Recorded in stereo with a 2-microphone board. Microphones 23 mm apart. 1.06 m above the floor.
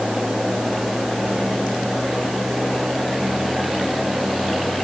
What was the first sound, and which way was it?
Only background noise.